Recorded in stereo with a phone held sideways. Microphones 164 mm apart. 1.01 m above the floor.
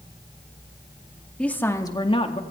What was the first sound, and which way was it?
A woman speaking, 5° left (ahead or behind).